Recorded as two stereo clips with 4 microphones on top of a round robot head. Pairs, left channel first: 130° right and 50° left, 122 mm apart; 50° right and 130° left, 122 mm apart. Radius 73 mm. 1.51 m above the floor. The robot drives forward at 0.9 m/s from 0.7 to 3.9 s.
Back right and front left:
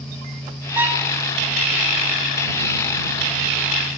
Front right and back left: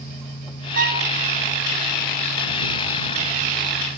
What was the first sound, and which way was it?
A violin, 125° left.